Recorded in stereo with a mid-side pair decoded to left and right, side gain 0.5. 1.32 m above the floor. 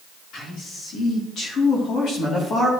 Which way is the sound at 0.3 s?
65° left.